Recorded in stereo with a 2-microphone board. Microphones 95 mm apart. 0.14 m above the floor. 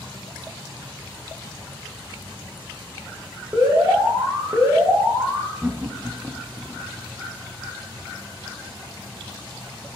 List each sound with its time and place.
3.5 s an alarm: 25° right (ahead or behind), 8 m
5.6 s laughter: 15° right (ahead or behind), 1.3 m